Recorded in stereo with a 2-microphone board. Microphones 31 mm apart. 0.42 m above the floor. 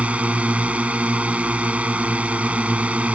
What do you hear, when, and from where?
0.0 s a drone: 45° right (ahead or behind)